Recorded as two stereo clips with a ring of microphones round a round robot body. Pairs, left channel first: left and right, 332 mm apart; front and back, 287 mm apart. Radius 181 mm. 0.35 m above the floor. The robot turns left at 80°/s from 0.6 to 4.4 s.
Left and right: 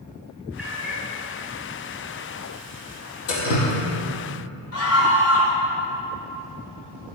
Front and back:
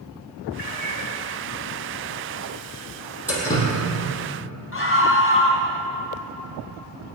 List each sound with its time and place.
0.6 s a cat meowing: 5° right, 2.5 m; by 1.1 s 40° right, 2.5 m
3.3 s dripping: 95° left, 5 m; by 3.7 s 60° left, 5 m
4.7 s a scream: 45° left, 4 m